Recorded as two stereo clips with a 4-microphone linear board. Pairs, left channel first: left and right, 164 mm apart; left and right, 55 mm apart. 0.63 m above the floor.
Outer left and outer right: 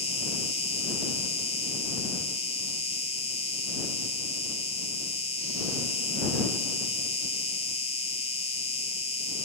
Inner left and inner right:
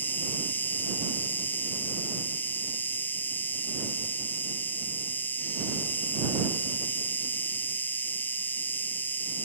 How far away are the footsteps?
No footsteps in this recording.